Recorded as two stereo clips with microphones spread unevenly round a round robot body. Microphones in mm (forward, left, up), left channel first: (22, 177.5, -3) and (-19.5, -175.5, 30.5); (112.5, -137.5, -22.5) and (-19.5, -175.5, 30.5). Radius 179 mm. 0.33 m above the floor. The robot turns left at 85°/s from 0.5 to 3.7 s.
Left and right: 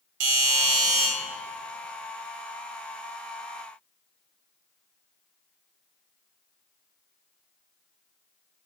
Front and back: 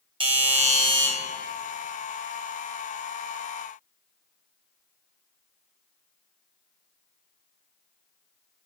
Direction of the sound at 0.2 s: 100° right.